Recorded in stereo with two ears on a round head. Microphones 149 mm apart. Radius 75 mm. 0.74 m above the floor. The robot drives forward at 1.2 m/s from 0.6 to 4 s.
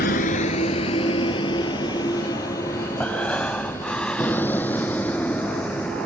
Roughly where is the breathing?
Centre.